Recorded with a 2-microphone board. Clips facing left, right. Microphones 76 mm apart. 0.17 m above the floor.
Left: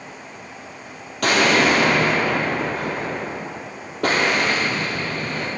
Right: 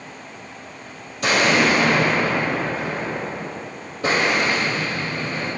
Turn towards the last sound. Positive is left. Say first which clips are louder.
# left 1 dB
turn(degrees=70)  # may be behind; listen again after turning